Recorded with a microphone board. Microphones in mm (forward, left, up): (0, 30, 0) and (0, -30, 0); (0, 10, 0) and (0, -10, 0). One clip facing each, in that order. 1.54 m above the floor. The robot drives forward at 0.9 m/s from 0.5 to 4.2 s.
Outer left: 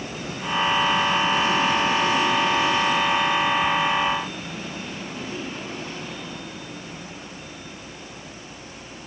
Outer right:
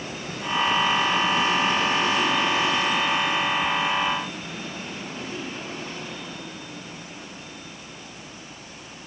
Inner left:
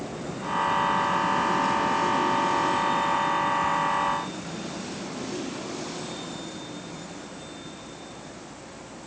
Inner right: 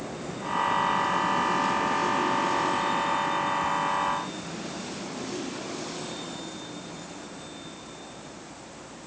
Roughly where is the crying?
No crying in this recording.